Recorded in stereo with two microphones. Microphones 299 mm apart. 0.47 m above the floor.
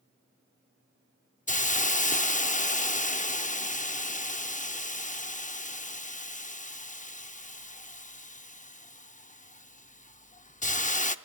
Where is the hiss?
25° left (ahead or behind), 0.5 m.